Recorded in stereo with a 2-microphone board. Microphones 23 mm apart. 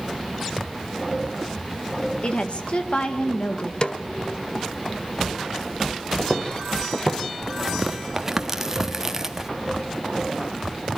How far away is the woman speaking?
About 1.9 m.